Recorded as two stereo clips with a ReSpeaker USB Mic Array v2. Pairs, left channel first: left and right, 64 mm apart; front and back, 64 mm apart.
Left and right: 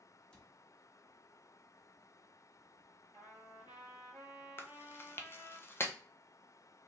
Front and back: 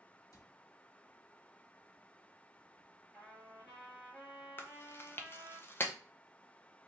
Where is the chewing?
50° left, 0.5 m.